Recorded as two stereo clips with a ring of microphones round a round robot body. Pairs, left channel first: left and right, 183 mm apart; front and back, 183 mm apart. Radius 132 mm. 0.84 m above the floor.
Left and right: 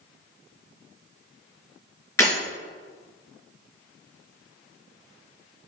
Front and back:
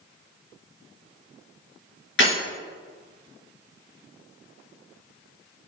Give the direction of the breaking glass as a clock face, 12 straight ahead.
12 o'clock.